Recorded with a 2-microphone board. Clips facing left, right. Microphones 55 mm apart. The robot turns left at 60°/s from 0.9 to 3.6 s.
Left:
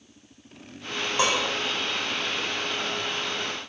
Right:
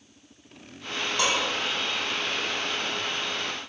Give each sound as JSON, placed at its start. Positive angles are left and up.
{"t": 1.2, "sound": "dishes clattering", "side_deg": 25, "distance_m": 3.5}